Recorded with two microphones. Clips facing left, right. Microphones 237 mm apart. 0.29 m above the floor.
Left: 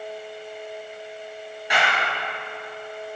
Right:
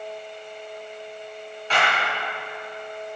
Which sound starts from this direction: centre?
A clap, at 1.7 s.